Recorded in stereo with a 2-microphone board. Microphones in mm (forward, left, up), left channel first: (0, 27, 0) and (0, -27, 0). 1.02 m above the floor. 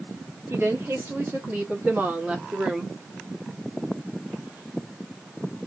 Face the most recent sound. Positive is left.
turn(degrees=-10)  # may be behind; listen again after turning